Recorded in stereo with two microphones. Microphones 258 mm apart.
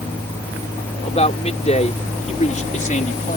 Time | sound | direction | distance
1.0 | a man speaking | 25° left (ahead or behind) | ?